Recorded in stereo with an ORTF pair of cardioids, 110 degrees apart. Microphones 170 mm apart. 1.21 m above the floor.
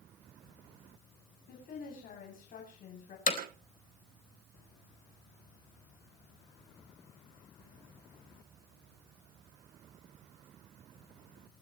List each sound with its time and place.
1.5 s a woman speaking: 60° left, 8 m; by 3.2 s 55° left, 8 m
3.3 s hammering: 55° left, 4 m